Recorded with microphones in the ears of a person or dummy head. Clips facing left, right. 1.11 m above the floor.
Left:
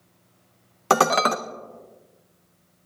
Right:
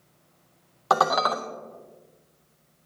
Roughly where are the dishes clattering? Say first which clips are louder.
Left 3 dB; left.